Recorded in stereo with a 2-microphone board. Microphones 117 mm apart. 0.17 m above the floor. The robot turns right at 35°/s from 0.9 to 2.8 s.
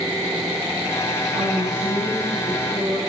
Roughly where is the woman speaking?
Ahead right.